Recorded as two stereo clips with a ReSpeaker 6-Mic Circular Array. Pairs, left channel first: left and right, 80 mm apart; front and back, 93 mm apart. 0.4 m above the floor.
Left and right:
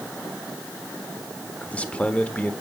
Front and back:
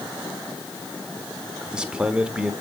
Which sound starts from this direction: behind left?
A man speaking, at 1.6 s.